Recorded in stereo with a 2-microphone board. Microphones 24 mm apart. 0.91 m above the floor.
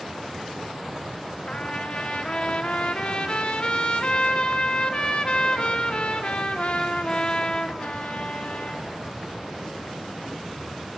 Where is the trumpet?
50° left (ahead or behind), 0.8 m.